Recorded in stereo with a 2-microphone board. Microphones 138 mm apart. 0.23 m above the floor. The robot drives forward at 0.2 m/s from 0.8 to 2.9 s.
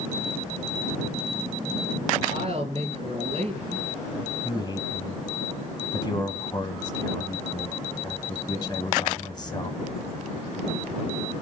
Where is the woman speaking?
50° right (ahead or behind), 3 m.